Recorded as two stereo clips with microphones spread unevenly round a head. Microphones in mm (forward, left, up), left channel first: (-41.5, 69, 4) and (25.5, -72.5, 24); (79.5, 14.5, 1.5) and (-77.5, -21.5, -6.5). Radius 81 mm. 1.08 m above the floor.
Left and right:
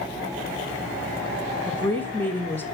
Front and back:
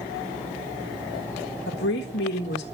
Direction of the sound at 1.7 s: 40° left.